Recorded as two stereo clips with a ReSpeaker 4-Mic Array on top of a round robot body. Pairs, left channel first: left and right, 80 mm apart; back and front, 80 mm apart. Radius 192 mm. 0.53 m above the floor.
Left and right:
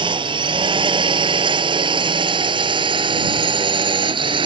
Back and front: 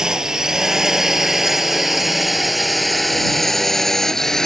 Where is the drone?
80° right; by 4.5 s 95° right.